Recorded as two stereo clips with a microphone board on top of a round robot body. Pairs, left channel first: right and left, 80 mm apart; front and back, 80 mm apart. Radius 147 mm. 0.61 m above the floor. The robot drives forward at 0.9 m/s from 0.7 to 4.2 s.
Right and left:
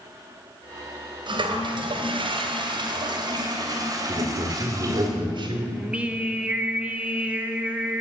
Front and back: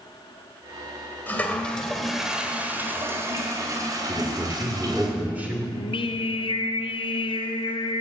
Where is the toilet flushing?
65° left, 1.8 m; by 5.1 s 140° left, 2.5 m.